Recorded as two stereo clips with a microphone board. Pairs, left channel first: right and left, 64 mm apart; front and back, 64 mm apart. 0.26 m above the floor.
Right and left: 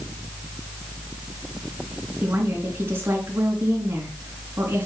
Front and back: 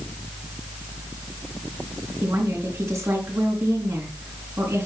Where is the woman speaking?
140° left, 3.5 m.